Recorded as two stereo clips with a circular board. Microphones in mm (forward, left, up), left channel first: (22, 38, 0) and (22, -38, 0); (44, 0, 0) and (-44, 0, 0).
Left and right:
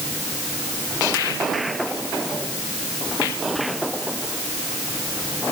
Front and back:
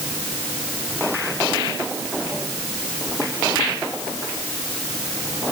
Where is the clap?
No clap in this recording.